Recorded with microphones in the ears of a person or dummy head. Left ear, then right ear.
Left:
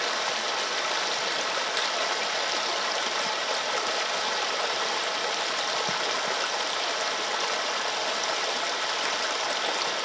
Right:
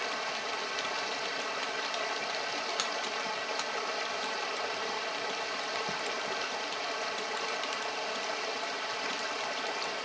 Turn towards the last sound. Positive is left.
turn(degrees=80)